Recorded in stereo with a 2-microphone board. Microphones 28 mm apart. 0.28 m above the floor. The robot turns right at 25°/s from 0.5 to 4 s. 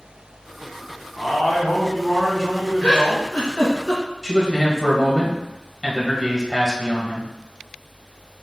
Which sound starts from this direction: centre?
A man speaking, at 4.2 s.